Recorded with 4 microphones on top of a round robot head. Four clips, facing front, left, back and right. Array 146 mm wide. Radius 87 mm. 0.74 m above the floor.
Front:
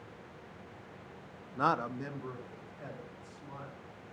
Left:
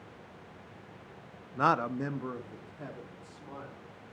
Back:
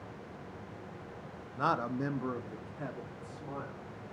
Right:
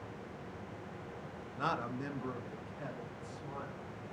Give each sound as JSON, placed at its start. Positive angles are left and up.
{"t": 1.6, "sound": "a man speaking", "azimuth_deg": 70, "distance_m": 0.6}